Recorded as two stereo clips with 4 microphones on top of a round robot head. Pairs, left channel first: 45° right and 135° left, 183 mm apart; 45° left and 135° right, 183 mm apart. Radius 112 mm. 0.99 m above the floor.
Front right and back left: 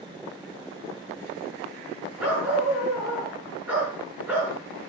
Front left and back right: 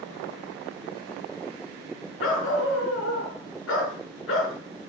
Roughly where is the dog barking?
Ahead left.